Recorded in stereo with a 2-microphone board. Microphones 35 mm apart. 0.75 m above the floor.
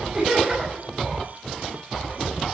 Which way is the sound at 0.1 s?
20° right (ahead or behind).